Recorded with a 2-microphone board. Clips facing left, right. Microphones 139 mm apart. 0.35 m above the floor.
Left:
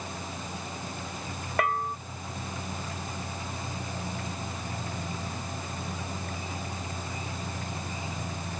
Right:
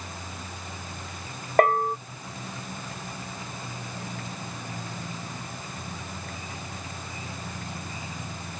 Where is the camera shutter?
I don't hear a camera shutter.